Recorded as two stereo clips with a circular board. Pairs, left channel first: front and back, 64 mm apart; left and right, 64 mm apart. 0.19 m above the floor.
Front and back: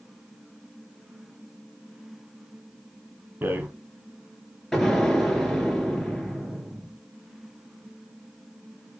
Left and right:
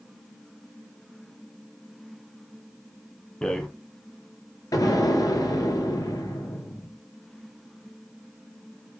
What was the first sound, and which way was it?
A rattle, 160° left.